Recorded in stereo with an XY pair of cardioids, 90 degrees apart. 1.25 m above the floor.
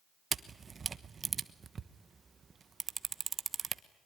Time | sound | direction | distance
0.3 | a camera shutter | 45° right | 1.1 m